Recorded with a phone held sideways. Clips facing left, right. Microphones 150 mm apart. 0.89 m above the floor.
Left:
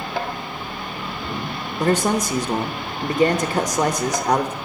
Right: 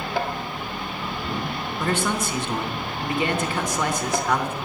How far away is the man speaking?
About 0.9 m.